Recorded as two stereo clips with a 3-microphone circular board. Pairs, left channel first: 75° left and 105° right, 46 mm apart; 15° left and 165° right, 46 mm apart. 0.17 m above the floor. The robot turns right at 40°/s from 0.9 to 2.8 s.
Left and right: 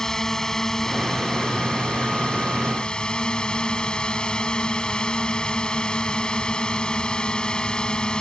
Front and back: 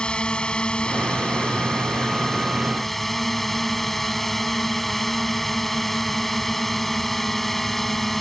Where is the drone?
20° left; by 8.2 s 95° left.